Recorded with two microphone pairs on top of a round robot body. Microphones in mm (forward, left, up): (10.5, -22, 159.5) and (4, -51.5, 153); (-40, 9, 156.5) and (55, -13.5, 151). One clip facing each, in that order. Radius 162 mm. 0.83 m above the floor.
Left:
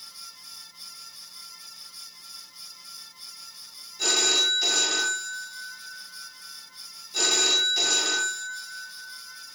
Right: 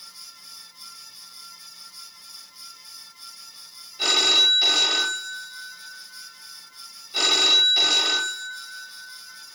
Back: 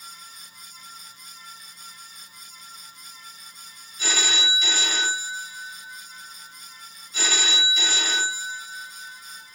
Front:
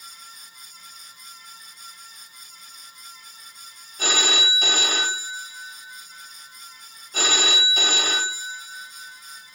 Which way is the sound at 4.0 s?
50° right.